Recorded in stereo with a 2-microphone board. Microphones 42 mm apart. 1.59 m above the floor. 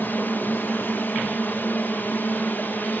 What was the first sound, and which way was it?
A drone, 55° left (ahead or behind).